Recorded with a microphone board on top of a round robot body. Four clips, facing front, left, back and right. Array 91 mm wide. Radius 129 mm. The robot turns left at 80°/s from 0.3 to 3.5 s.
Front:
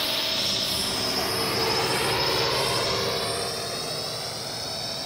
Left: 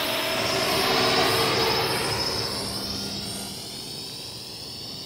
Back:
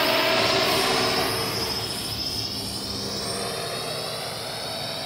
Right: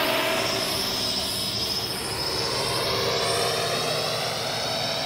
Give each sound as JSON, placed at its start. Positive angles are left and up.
{"t": 0.0, "sound": "a drone", "azimuth_deg": -150}